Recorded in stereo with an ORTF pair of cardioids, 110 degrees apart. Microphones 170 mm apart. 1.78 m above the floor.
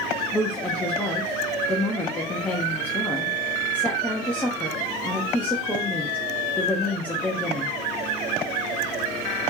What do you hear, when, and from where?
0.3 s a woman speaking: 10° left, 0.9 m